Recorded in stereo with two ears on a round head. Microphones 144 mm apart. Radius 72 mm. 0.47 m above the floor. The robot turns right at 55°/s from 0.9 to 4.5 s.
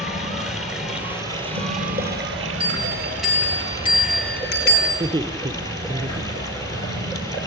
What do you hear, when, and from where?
0.0 s running water: 175° right, 6 m; by 7.5 s 20° left, 6 m
2.6 s a bell: 35° right, 8.5 m; by 4.9 s 70° left, 8.5 m
5.0 s laughter: 20° right (ahead or behind), 1.6 m